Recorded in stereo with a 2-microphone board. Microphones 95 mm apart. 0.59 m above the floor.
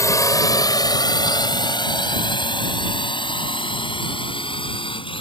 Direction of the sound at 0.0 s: 35° left (ahead or behind).